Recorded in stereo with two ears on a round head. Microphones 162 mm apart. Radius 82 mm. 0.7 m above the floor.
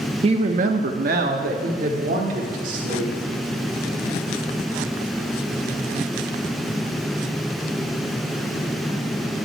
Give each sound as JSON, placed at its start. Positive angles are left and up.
{"t": 0.2, "sound": "a woman speaking", "side_deg": -30, "distance_m": 0.6}